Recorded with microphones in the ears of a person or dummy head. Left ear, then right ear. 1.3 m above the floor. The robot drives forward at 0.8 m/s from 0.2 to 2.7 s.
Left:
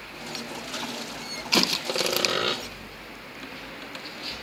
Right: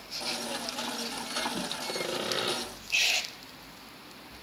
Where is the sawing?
25° left (ahead or behind), 1.0 m; by 2.6 s 15° left (ahead or behind), 1.5 m.